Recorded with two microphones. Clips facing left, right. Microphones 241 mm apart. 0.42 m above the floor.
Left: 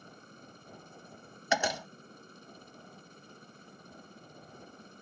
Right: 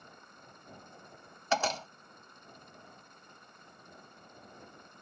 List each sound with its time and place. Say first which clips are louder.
0.0 s a helicopter: left 5 dB; 35° left (ahead or behind)
1.5 s a door slam: left 1 dB; 15° left (ahead or behind)